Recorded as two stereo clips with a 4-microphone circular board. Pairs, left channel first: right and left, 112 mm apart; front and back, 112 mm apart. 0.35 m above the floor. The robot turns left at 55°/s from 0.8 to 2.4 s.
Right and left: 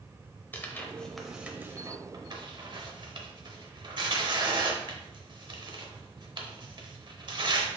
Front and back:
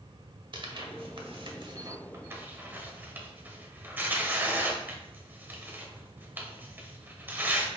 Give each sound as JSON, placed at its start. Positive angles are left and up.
{"t": 0.5, "sound": "tearing paper", "azimuth_deg": -160, "distance_m": 0.7}